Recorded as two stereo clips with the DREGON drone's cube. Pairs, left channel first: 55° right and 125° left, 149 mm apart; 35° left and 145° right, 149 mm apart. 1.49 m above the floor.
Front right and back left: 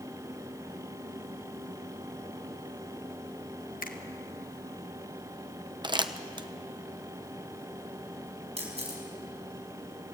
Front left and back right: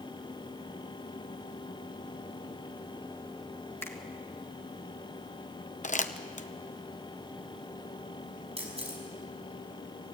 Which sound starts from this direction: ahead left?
Crumpling, at 5.8 s.